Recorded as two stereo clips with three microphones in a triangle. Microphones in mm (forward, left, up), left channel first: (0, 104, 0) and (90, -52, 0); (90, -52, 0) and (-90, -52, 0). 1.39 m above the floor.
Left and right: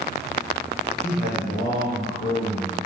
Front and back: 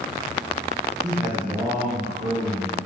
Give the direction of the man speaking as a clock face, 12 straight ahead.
8 o'clock.